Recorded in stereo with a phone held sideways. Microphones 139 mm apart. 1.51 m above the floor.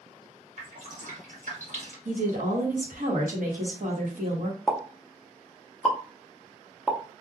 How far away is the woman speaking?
About 1.1 m.